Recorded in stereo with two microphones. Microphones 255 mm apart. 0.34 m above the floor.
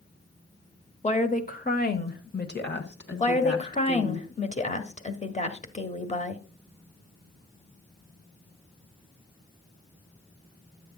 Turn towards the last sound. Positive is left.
turn(degrees=25)  # may be behind; listen again after turning